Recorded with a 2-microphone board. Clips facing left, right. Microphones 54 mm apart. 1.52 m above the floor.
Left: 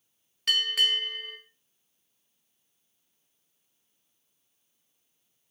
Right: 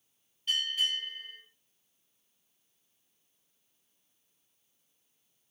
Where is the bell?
85° left, 1.5 m.